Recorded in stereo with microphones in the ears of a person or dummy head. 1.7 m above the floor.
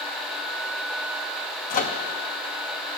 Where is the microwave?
45° left (ahead or behind), 0.6 m.